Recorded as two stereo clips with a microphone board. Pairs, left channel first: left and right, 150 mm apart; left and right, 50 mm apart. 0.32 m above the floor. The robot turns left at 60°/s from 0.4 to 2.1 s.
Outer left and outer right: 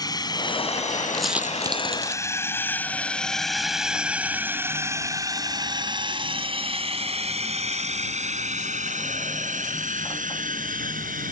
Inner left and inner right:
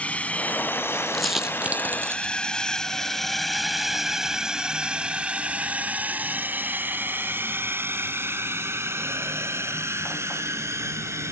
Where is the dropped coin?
5° left (ahead or behind); by 2.3 s 50° right (ahead or behind).